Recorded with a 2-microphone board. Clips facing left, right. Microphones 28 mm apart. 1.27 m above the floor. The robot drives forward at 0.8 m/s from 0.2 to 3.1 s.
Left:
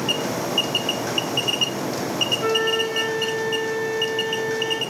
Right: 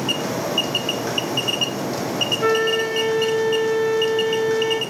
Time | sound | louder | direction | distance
2.4 | a flute | right 4 dB | 20° right (ahead or behind) | 1.2 m